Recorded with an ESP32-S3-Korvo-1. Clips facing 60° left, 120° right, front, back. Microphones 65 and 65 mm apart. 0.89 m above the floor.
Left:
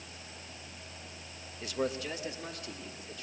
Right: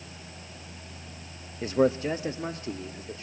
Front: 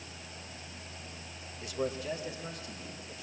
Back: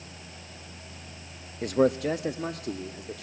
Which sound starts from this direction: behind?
A man speaking, at 1.6 s.